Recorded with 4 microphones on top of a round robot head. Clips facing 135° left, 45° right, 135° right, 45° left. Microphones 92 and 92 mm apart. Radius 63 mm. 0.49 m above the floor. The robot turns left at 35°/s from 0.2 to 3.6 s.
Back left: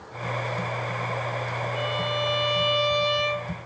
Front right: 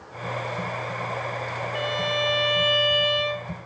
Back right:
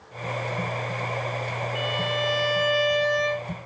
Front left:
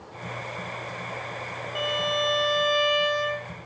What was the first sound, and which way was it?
A violin, 20° right.